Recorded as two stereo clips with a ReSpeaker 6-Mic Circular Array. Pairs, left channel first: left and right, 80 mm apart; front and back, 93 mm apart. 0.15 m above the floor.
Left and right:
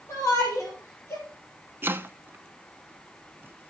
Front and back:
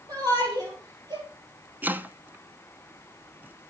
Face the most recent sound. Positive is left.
turn(degrees=-125)